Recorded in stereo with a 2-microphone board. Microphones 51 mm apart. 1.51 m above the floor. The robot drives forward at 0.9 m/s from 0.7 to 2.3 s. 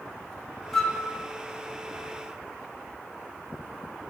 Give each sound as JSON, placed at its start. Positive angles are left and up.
{"t": 0.7, "sound": "a flute", "side_deg": 10, "distance_m": 2.5}